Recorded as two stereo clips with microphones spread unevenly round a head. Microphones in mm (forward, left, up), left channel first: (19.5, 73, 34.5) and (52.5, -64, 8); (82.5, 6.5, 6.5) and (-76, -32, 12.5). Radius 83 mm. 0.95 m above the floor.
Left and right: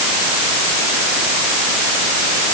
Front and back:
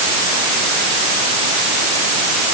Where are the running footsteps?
I don't hear running footsteps.